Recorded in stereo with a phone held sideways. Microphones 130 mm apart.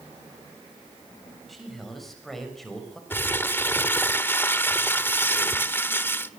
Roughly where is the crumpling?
Centre.